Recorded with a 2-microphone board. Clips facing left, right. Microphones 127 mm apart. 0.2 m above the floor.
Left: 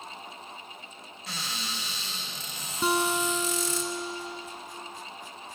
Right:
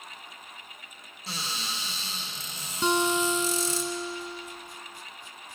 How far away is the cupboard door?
About 3 m.